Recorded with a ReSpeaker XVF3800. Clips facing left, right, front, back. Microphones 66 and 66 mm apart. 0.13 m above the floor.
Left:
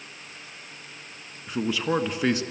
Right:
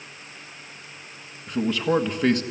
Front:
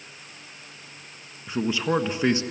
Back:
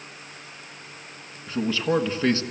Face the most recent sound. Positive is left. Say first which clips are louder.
# right 3 dB, back 1 dB
turn(degrees=10)